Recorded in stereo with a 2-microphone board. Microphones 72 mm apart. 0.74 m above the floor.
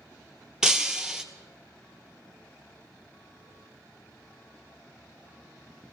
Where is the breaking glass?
10° right (ahead or behind), 1.1 m.